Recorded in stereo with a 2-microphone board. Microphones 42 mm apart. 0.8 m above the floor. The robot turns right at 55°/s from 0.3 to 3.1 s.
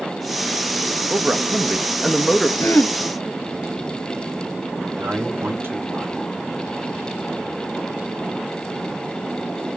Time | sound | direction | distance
1.1 | a man speaking | 55° right | 1.1 m
2.6 | throat clearing | 70° left (ahead or behind) | 1.5 m
5.0 | a man speaking | 70° right (ahead or behind) | 4 m